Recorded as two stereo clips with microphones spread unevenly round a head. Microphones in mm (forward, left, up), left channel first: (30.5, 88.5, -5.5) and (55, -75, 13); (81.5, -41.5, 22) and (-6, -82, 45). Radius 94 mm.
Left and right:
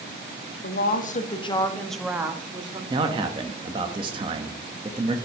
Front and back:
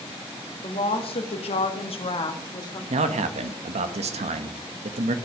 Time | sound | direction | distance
0.6 | a woman speaking | 75° left | 1.7 m
2.9 | a man speaking | 150° right | 1.0 m